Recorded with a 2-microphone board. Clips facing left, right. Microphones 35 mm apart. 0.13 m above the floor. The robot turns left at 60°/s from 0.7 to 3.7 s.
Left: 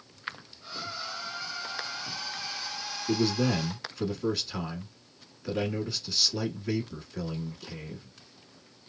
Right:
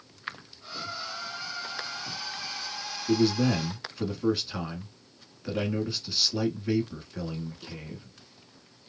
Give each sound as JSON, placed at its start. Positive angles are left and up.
{"t": 3.1, "sound": "a man speaking", "side_deg": 5, "distance_m": 1.1}